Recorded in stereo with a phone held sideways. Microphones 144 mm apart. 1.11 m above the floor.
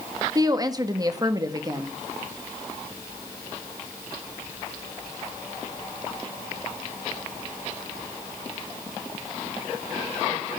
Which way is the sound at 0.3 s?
30° right (ahead or behind).